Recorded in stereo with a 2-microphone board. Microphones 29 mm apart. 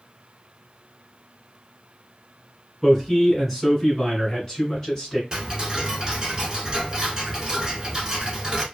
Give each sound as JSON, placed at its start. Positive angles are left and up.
{"t": 2.8, "sound": "a man speaking", "side_deg": -5, "distance_m": 1.8}
{"t": 5.3, "sound": "ticking", "side_deg": -30, "distance_m": 0.8}